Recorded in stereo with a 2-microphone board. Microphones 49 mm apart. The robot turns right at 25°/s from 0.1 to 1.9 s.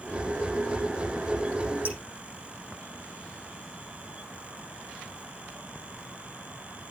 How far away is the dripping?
About 8 m.